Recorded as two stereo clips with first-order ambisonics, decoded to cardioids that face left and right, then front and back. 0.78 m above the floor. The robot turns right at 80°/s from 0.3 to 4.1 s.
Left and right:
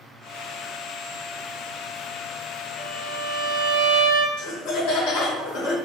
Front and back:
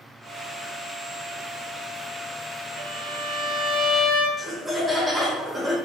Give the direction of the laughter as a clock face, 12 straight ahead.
9 o'clock.